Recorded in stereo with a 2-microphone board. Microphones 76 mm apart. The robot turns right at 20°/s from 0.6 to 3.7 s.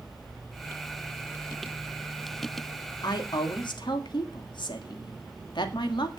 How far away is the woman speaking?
About 1.9 m.